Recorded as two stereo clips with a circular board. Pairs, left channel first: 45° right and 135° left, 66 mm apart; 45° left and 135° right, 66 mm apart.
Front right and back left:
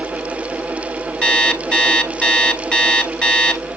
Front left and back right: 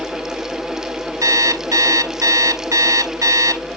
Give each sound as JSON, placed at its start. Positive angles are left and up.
{"t": 1.2, "sound": "an alarm clock", "azimuth_deg": -115, "distance_m": 1.2}